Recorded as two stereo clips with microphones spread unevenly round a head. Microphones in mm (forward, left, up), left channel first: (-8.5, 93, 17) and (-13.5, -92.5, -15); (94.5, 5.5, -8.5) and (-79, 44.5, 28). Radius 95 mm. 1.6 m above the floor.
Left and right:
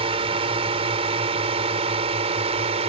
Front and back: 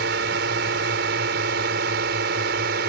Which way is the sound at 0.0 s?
155° right.